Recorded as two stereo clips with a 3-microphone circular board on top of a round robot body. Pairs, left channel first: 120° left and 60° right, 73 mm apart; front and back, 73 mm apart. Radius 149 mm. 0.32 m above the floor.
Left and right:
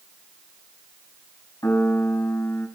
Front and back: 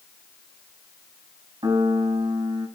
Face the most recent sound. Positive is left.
turn(degrees=165)